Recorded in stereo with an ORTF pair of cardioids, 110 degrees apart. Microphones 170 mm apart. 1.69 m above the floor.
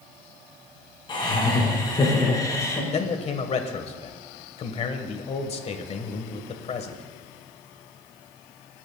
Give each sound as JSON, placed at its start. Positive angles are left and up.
{"t": 1.1, "sound": "laughter", "azimuth_deg": 30, "distance_m": 5.0}
{"t": 2.9, "sound": "a man speaking", "azimuth_deg": 40, "distance_m": 1.5}